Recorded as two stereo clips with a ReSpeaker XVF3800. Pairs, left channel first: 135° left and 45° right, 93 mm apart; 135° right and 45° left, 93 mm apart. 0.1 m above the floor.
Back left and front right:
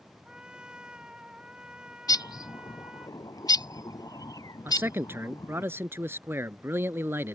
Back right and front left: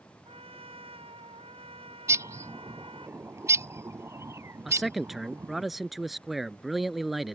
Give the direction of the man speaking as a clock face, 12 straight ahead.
1 o'clock.